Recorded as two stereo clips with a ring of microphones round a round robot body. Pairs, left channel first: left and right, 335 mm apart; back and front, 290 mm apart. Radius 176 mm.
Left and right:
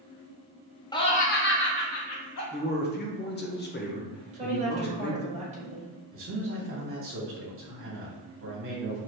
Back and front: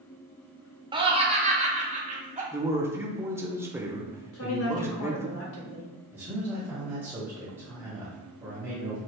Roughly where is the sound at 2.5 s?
Left.